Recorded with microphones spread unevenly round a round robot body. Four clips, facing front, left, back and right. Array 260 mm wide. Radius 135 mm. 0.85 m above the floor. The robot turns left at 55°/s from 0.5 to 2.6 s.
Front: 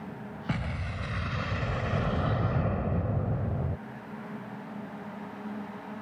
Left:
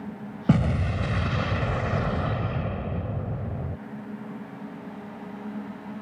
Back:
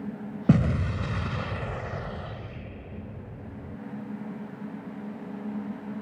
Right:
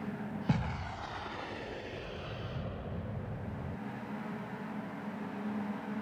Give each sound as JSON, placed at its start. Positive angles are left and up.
{"t": 0.5, "sound": "an explosion", "azimuth_deg": 145}